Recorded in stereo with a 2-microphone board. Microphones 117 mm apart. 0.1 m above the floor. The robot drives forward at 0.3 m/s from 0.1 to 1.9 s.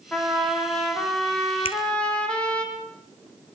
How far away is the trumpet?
About 6 m.